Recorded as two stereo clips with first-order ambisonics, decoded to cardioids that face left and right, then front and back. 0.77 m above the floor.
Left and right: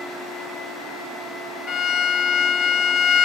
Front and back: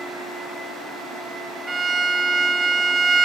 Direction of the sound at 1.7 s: 90° left.